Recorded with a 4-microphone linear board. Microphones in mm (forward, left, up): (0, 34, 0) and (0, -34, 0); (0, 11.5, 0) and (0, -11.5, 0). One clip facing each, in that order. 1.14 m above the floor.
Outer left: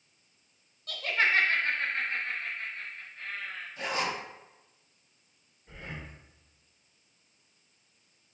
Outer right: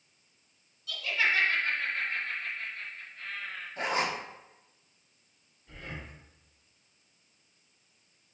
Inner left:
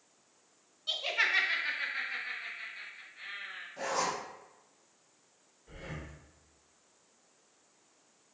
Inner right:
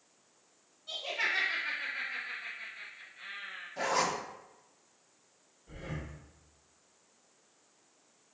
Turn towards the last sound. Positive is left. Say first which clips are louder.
# even, inner right 2 dB
turn(degrees=30)  # may be behind; listen again after turning